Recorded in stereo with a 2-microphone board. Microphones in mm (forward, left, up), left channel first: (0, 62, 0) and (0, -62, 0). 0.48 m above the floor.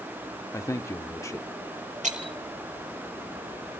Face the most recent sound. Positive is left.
turn(degrees=-85)